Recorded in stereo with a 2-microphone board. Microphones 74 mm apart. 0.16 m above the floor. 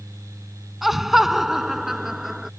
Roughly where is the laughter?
Centre.